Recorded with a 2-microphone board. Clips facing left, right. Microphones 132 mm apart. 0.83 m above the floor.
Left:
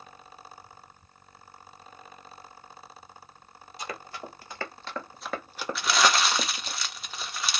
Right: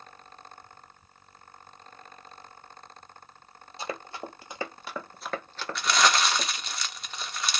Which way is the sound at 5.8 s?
Centre (ahead or behind).